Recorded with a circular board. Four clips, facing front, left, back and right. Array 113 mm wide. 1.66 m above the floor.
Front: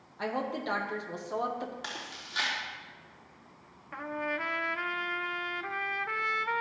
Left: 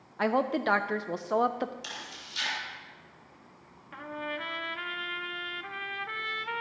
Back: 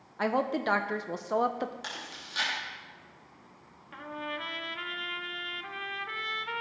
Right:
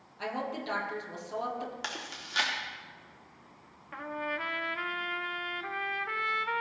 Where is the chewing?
85° right, 3 m.